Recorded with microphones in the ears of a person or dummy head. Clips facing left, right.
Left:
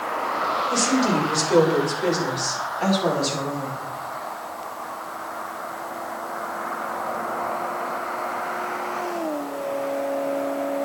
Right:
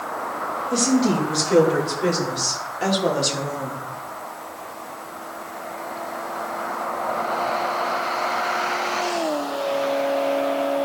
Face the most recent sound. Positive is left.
turn(degrees=-35)  # may be behind; listen again after turning